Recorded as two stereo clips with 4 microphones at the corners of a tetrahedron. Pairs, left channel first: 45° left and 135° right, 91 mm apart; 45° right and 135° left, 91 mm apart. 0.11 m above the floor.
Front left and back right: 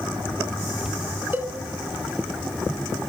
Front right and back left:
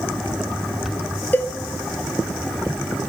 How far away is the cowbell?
About 0.7 m.